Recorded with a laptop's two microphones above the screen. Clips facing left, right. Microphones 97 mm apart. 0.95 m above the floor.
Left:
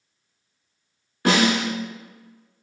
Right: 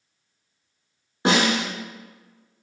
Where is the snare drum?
20° right (ahead or behind), 0.9 m.